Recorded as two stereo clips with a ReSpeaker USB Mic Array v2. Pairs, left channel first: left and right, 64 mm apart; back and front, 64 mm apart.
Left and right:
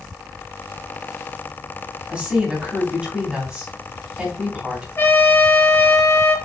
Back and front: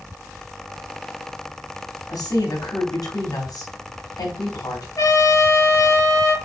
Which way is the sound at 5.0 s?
150° left.